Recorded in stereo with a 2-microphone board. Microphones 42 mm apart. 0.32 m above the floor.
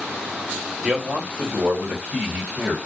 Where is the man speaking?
25° right (ahead or behind), 1.5 m; by 2.8 s 40° right (ahead or behind), 2 m.